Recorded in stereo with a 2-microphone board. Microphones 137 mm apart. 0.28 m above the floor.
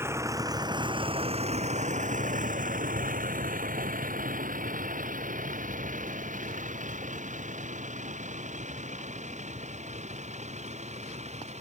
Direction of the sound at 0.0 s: 15° right (ahead or behind).